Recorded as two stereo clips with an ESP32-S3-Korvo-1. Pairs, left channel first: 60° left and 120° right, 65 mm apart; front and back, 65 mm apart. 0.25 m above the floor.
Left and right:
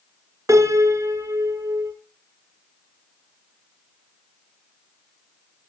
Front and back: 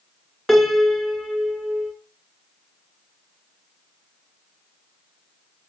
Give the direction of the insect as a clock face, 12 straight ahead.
No insect in this recording.